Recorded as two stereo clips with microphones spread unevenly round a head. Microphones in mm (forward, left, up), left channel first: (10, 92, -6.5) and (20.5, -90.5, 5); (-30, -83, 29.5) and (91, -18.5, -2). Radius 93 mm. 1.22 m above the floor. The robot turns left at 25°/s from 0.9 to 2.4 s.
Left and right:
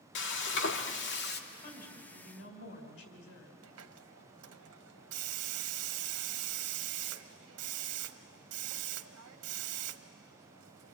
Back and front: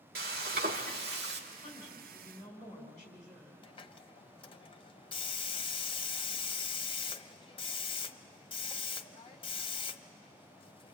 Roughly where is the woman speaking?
Behind left.